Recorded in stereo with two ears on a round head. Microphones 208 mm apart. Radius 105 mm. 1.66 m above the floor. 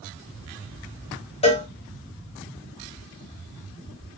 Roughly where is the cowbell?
Left.